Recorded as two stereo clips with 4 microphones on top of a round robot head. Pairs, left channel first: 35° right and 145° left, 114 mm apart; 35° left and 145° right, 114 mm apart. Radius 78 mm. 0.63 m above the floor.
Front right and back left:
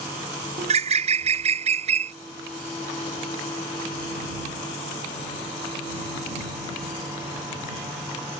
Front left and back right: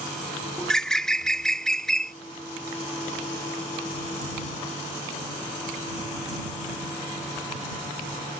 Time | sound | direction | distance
0.6 | a bird | 120° left | ?